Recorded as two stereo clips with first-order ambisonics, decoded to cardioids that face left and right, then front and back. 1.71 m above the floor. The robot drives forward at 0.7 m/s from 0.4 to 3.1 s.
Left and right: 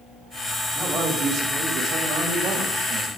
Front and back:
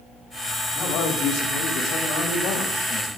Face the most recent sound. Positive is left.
turn(degrees=-40)